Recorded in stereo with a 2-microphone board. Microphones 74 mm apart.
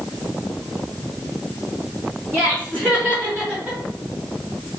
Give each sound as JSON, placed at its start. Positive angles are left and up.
{"t": 2.3, "sound": "laughter", "side_deg": -20, "distance_m": 2.0}